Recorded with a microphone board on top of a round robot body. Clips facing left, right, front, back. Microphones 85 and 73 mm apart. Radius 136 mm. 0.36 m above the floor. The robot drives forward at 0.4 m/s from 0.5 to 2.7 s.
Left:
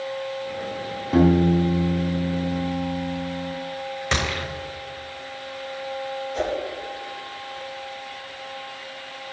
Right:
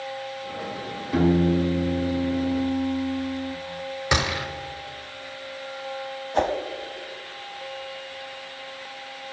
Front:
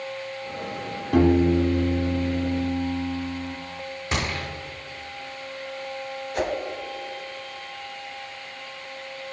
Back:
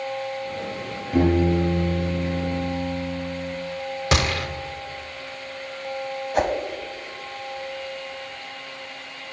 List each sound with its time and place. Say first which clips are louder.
1.1 s a piano: left 3 dB, front 1 dB; 35° left, 1.9 m; by 3.5 s 45° left, 1.4 m
4.1 s a gunshot: right 2 dB, back 5 dB; 165° right, 0.9 m
6.3 s a whoosh: right 4 dB, back 4 dB; 130° right, 0.8 m